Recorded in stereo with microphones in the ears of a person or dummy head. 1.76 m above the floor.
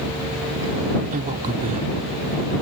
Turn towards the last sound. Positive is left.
turn(degrees=-45)  # may be behind; listen again after turning